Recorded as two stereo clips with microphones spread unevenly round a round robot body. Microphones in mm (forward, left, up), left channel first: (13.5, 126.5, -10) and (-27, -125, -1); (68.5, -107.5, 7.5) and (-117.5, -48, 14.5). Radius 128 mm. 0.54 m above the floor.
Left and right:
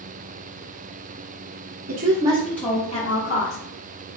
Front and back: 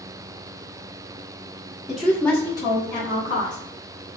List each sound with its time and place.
1.9 s a woman speaking: 110° right, 0.7 m; by 3.6 s 40° left, 1.2 m